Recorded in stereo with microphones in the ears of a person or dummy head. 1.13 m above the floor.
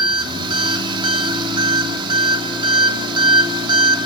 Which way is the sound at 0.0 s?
30° right (ahead or behind).